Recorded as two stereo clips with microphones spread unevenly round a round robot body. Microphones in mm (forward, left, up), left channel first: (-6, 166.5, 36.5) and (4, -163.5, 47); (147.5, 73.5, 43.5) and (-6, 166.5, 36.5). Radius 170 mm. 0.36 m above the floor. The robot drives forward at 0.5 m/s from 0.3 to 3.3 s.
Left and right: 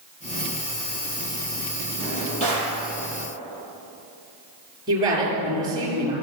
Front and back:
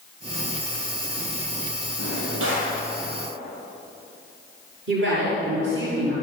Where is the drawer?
160° left, 7 m.